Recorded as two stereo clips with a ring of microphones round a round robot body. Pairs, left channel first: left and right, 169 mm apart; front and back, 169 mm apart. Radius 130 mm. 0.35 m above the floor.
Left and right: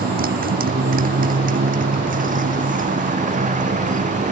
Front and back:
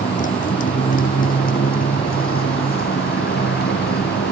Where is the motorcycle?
60° right; by 4.3 s 50° right.